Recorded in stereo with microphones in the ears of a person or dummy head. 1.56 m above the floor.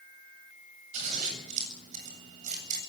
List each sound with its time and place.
0.9 s scissors: 50° right (ahead or behind), 8 m